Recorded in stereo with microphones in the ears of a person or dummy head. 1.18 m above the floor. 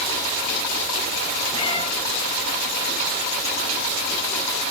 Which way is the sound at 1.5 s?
35° left (ahead or behind).